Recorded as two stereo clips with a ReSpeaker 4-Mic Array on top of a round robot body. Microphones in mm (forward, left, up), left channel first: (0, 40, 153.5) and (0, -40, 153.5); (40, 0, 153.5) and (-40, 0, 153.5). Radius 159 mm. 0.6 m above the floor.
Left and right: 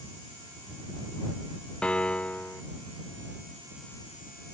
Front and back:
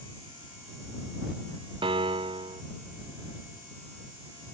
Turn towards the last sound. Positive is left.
turn(degrees=165)